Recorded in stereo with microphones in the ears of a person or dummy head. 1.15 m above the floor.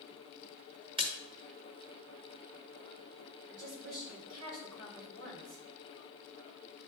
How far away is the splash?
About 1.2 m.